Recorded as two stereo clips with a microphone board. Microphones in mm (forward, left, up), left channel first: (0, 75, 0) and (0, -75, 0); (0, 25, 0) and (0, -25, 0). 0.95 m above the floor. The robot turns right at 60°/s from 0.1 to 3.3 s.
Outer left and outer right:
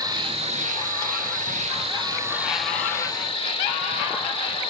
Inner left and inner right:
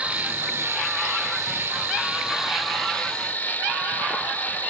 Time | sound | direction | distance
0.0 | an insect | 150° right | 1.0 m